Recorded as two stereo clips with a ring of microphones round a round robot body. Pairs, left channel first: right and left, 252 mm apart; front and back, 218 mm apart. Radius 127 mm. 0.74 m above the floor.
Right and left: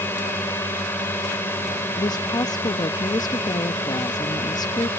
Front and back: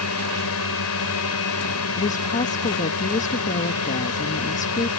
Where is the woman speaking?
25° right.